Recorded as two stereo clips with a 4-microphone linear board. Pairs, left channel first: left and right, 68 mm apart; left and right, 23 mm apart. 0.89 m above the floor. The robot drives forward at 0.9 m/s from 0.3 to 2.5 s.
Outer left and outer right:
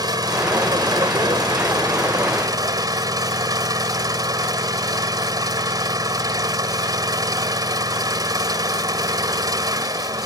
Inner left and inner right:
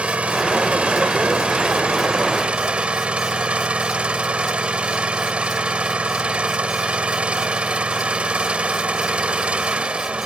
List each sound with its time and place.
0.0 s an engine running: 75° right (ahead or behind); by 10.3 s 65° right (ahead or behind)